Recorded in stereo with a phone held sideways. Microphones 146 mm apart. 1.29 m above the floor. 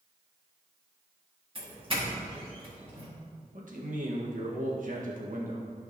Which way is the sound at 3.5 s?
65° right (ahead or behind).